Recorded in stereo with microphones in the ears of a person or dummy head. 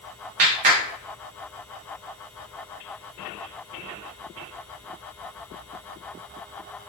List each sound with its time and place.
0.4 s a clap: 40° right (ahead or behind), 0.6 m